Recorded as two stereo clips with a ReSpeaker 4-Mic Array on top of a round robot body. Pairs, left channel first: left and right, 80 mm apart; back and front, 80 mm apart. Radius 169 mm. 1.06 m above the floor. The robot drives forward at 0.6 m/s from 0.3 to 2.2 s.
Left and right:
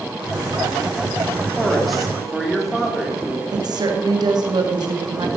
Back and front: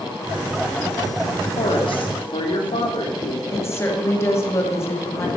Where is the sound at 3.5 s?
120° right, 2.0 m.